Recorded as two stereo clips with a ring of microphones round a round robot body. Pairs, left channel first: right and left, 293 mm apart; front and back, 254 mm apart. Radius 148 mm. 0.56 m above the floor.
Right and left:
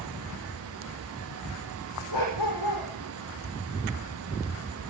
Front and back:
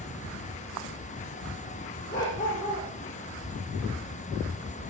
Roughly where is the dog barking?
Ahead right.